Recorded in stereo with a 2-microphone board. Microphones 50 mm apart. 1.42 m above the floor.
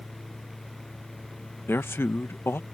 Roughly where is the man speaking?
Left.